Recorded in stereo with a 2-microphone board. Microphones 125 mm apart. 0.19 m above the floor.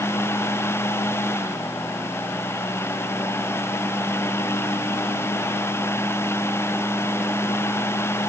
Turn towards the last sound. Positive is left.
No sound to turn to.